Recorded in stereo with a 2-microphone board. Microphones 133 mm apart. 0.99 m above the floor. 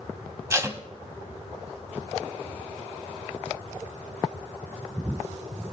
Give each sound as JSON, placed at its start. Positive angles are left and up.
{"t": 0.5, "sound": "tape being pulled", "side_deg": -25, "distance_m": 1.3}